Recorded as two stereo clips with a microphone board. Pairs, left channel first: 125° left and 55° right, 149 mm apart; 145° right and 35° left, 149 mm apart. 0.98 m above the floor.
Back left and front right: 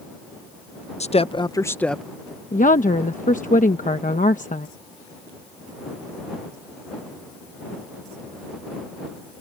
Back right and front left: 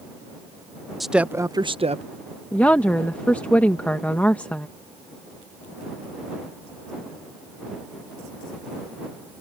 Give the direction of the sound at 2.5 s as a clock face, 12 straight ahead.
7 o'clock.